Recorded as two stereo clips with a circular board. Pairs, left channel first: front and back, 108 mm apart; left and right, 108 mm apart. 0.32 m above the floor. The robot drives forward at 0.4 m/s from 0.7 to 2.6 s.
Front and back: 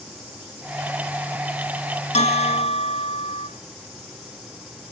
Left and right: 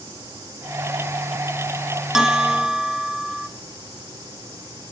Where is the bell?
5° right, 1.3 m.